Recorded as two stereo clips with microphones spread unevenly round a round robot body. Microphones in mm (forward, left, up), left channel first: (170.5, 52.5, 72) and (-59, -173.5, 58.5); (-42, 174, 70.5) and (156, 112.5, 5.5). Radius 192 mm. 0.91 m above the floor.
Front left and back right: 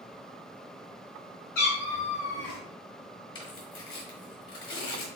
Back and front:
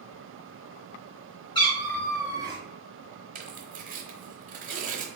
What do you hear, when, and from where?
1.6 s a cat meowing: 105° left, 1.2 m; by 2.6 s 55° left, 0.9 m
3.4 s tearing paper: 5° left, 0.6 m